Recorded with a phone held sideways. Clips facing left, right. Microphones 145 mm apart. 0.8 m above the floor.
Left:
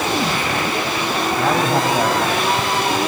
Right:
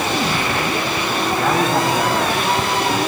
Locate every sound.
1.4 s a man speaking: 25° left (ahead or behind), 4 m